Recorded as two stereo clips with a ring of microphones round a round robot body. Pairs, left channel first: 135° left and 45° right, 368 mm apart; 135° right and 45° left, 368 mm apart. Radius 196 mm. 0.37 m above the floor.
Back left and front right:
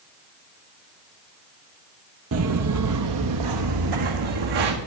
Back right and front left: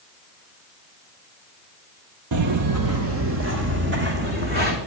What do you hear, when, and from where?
2.3 s footsteps: 5° left, 0.8 m; by 4.8 s 20° right, 2.0 m